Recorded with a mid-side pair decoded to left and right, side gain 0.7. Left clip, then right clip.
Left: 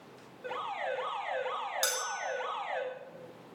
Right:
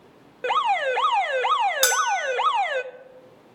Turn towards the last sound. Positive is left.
turn(degrees=-45)